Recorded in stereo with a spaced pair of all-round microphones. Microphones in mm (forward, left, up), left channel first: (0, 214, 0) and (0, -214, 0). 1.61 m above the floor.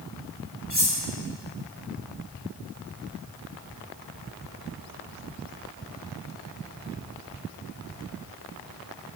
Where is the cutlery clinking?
30° right (ahead or behind), 2 m.